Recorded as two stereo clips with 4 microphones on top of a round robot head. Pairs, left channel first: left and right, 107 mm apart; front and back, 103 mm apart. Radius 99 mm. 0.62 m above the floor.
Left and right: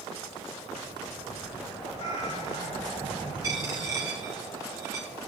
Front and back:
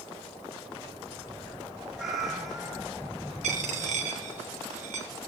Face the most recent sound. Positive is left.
turn(degrees=-160)